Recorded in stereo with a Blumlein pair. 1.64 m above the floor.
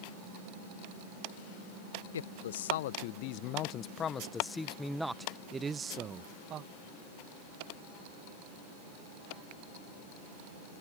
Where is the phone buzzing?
I don't hear a phone buzzing.